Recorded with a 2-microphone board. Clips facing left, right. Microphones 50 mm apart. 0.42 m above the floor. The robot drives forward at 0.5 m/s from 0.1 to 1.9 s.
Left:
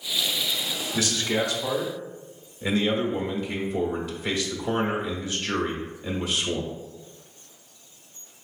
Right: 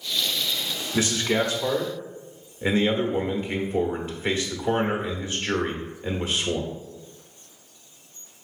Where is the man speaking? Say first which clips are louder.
Right 3 dB; 30° right (ahead or behind), 1.0 m.